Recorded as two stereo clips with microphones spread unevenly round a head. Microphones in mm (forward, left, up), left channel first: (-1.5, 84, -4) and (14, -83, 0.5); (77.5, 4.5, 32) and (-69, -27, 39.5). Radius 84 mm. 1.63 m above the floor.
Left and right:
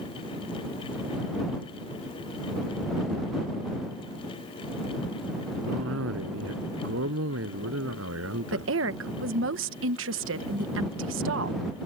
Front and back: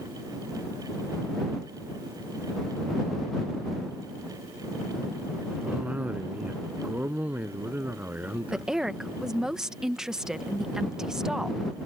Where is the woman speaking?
80° right.